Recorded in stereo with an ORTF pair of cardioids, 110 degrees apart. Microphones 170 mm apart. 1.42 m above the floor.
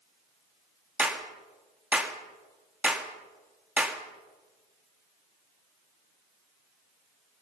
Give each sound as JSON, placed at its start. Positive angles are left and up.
{"t": 1.0, "sound": "a clap", "azimuth_deg": -10, "distance_m": 2.5}